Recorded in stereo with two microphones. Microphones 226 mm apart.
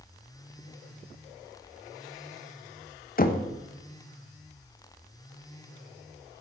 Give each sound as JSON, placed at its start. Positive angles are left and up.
{"t": 3.2, "sound": "knocking", "side_deg": 40, "distance_m": 0.6}